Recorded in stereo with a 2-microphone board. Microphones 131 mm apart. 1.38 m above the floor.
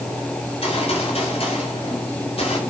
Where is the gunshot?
45° left (ahead or behind), 4.5 m.